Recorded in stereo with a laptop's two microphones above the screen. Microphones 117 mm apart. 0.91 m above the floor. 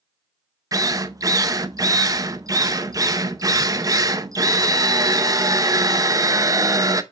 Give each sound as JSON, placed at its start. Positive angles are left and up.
{"t": 0.7, "sound": "a drill", "side_deg": -30, "distance_m": 0.7}